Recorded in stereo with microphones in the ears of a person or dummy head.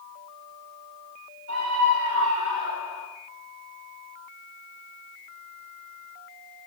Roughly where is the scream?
Right.